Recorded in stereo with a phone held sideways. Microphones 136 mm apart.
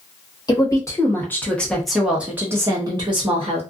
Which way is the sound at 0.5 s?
30° left (ahead or behind).